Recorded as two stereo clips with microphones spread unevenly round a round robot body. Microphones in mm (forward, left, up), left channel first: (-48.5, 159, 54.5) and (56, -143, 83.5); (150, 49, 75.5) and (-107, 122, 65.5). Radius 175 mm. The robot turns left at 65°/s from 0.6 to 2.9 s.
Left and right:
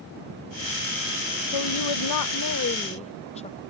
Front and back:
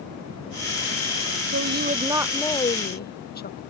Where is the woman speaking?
125° left; by 3.6 s 40° left.